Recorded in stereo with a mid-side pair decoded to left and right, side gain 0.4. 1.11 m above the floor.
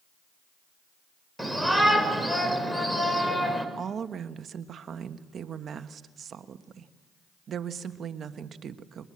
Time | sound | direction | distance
1.4 | a shout | straight ahead | 5.5 m
3.8 | a woman speaking | 60° right | 1.4 m